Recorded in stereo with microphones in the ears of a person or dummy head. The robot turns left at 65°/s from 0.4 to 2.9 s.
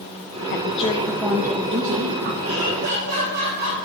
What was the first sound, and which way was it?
A woman speaking, 50° left.